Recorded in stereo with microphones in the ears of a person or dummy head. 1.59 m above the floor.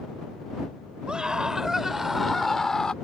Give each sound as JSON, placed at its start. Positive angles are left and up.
{"t": 1.1, "sound": "a scream", "side_deg": -5}